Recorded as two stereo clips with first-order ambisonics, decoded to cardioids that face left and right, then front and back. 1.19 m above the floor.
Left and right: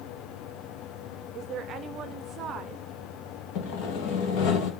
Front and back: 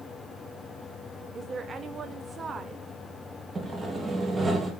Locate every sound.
1.4 s a woman speaking: 120° right, 0.6 m
3.5 s sawing: 105° left, 1.7 m